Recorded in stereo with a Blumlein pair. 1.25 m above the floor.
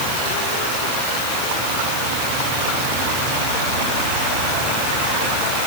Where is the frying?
I don't hear frying.